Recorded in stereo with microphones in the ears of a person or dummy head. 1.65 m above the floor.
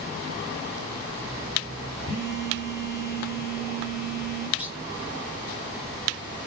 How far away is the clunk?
About 1.0 m.